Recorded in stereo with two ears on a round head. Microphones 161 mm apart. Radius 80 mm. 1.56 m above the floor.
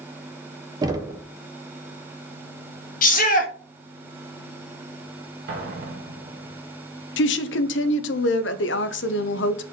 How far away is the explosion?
About 1.1 m.